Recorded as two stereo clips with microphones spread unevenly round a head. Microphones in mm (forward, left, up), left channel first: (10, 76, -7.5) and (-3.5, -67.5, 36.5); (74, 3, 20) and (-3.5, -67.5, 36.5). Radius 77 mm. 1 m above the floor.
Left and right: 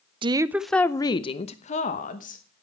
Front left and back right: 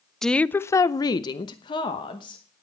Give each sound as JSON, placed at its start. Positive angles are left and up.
{"t": 0.2, "sound": "a woman speaking", "azimuth_deg": -30, "distance_m": 0.5}